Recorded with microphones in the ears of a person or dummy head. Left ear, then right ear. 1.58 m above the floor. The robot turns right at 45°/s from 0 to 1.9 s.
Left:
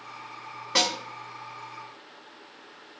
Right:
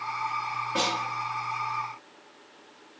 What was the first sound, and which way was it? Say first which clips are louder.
A snare drum: left 4 dB; 65° left (ahead or behind).